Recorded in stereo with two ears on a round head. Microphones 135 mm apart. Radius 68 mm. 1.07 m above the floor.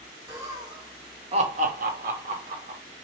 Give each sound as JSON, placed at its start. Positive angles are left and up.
{"t": 0.3, "sound": "laughter", "side_deg": -20, "distance_m": 1.4}